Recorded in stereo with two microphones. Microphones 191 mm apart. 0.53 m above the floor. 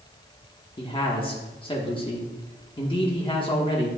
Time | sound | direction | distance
0.8 | a man speaking | 25° left (ahead or behind) | 1.0 m